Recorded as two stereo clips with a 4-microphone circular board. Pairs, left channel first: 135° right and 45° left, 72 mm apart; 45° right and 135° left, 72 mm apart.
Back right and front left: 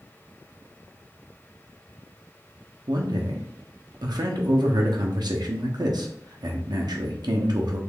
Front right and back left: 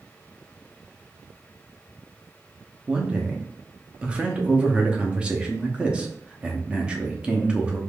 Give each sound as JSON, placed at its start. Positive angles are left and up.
{"t": 2.9, "sound": "a man speaking", "azimuth_deg": 60, "distance_m": 0.7}